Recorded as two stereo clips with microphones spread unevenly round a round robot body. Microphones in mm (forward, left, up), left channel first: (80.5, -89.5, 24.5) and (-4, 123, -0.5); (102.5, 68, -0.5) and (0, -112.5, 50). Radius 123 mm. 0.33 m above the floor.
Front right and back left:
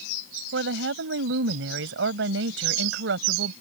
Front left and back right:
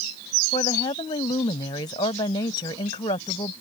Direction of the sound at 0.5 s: 120° left.